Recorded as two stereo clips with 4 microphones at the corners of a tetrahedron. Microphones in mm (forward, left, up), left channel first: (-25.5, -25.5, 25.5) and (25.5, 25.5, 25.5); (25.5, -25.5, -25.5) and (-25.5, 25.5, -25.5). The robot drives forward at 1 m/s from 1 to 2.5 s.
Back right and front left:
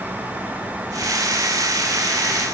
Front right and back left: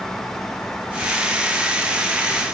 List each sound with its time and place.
Only background noise.